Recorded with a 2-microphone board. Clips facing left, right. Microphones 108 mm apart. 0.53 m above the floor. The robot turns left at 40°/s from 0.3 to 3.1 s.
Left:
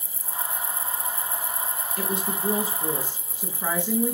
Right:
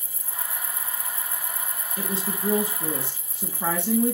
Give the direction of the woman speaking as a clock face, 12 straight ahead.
1 o'clock.